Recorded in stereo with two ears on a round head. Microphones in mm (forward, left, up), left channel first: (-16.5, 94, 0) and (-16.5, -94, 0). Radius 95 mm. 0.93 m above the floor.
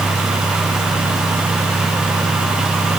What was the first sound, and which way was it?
Only background noise.